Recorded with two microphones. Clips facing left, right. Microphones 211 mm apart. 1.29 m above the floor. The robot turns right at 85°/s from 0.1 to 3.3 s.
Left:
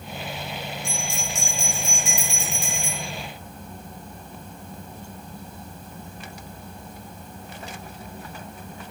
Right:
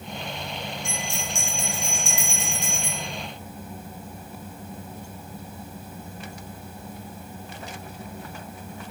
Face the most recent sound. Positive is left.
turn(degrees=110)